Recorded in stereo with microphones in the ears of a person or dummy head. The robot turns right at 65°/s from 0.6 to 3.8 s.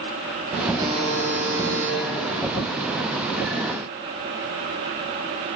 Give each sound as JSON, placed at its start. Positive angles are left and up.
{"t": 0.8, "sound": "a buzzer", "azimuth_deg": -170, "distance_m": 0.9}